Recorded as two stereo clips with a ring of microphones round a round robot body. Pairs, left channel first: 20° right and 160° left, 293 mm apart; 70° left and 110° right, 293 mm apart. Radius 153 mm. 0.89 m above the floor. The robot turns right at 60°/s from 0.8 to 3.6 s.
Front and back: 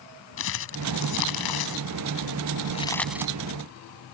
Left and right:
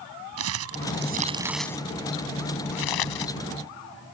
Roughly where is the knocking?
I don't hear knocking.